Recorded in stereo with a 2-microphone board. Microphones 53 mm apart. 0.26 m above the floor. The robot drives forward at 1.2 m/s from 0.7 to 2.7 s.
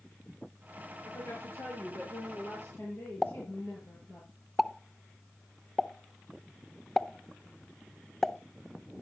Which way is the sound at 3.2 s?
10° left (ahead or behind).